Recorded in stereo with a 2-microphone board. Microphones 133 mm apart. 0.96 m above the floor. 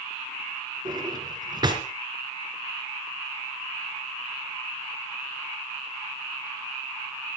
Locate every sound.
0.8 s a drawer: 30° right (ahead or behind), 3 m